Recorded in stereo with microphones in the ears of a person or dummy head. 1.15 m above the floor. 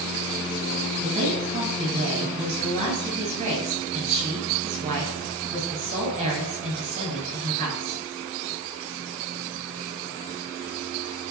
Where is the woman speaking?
35° right (ahead or behind), 7.5 m.